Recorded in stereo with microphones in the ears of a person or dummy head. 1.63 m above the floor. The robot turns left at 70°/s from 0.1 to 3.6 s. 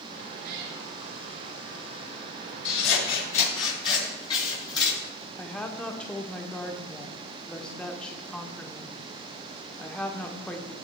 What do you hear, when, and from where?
0.4 s a cat meowing: 65° right (ahead or behind), 5.5 m; by 0.8 s 80° right, 5.5 m
2.6 s scissors: 75° left (ahead or behind), 5 m; by 5.0 s 25° left (ahead or behind), 5 m
5.4 s a woman speaking: 5° left (ahead or behind), 0.9 m